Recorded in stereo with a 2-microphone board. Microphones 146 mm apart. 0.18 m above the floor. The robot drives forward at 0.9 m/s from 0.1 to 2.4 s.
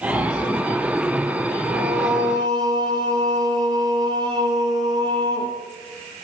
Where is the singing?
30° right (ahead or behind), 1.6 m.